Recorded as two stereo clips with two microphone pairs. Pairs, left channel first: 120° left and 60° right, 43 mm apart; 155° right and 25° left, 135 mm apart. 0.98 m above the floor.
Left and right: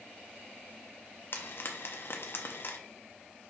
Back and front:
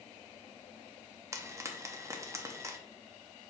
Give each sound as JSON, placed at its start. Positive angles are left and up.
{"t": 1.3, "sound": "frying", "azimuth_deg": 95, "distance_m": 0.6}